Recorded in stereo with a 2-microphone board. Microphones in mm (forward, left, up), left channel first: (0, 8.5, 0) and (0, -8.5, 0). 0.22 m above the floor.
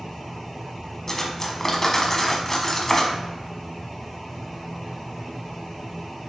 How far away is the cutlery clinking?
About 1.1 m.